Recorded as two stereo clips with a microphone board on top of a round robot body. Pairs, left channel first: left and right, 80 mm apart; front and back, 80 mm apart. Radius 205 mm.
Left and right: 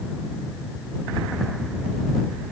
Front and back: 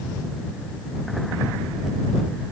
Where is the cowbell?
I don't hear a cowbell.